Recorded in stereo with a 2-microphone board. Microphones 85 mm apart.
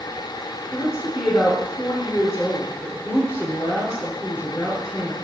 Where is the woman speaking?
35° left (ahead or behind), 4 m.